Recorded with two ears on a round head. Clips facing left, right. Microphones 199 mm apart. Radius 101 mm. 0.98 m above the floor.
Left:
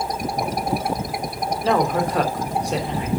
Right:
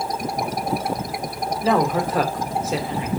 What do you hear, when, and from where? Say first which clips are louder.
1.6 s a woman speaking: even; centre (ahead or behind), 2.5 m